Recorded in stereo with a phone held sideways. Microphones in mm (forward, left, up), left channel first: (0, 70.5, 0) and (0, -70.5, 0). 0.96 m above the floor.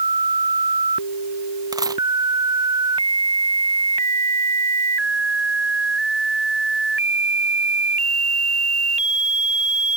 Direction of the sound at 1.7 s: 25° right (ahead or behind).